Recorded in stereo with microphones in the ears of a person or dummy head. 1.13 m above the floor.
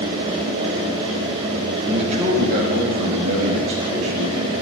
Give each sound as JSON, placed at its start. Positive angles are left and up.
{"t": 1.8, "sound": "a man speaking", "side_deg": -35, "distance_m": 1.1}